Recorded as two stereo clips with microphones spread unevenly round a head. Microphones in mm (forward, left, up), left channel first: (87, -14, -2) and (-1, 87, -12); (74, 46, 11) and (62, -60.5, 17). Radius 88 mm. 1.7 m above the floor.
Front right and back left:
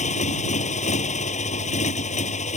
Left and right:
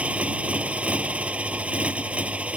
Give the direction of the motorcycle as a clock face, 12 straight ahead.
1 o'clock.